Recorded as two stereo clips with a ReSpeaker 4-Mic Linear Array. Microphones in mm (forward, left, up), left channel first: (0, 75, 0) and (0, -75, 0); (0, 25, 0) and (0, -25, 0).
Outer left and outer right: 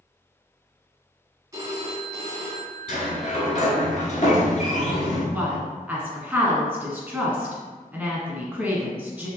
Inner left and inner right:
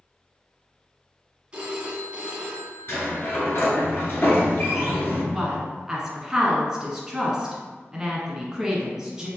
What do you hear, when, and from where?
1.5 s a phone ringing: 20° right (ahead or behind), 0.9 m
2.9 s a sliding door: 60° left (ahead or behind), 1.1 m
5.3 s a woman speaking: 5° right (ahead or behind), 1.2 m